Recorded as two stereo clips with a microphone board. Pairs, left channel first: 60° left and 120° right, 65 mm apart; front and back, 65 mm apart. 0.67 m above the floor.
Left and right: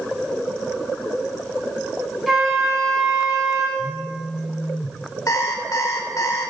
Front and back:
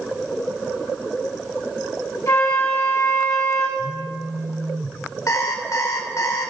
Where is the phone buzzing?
145° left, 0.6 m.